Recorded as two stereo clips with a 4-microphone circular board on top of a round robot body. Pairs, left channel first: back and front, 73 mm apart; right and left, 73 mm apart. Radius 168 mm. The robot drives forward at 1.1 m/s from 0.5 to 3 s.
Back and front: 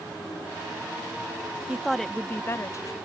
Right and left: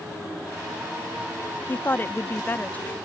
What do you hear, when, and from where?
1.7 s a woman speaking: 60° right; by 3.0 s 155° right